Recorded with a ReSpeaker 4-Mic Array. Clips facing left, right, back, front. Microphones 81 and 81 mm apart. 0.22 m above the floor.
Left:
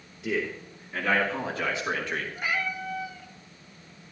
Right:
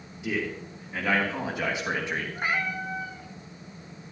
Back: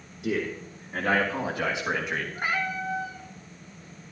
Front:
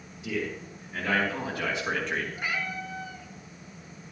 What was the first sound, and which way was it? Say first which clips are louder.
A man speaking: left 1 dB, back 3 dB; 175° right.